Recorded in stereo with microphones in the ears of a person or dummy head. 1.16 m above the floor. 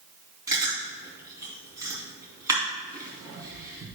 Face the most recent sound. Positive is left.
turn(degrees=-20)  # may be behind; listen again after turning